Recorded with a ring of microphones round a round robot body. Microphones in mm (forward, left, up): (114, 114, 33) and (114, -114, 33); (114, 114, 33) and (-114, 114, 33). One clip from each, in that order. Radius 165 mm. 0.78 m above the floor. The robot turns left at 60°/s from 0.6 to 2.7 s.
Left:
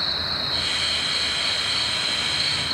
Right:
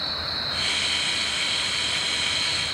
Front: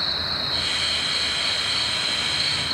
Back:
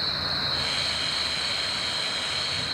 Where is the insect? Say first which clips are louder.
Left 3 dB, front 2 dB; 145° left, 2 m; by 2.7 s 15° left, 2 m.